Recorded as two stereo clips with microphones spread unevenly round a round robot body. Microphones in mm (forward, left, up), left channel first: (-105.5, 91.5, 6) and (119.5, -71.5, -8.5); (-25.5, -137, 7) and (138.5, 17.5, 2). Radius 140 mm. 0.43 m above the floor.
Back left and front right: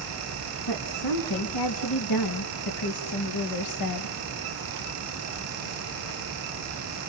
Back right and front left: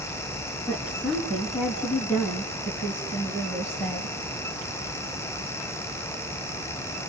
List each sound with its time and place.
0.7 s a woman speaking: 130° left, 4 m; by 4.2 s 145° left, 2.5 m